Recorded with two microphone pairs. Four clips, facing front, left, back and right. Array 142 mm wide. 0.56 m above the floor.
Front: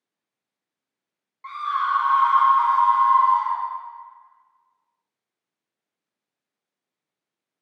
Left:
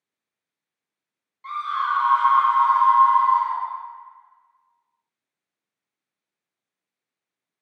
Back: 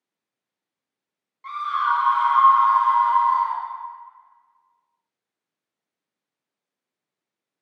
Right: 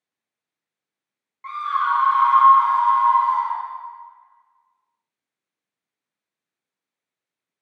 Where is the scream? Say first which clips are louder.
Right 3 dB, back 1 dB; 75° right, 1.1 m; by 3.6 s 95° right, 2 m.